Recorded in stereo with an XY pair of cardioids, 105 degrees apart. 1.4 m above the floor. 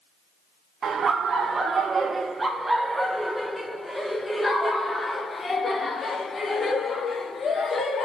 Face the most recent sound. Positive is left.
turn(degrees=40)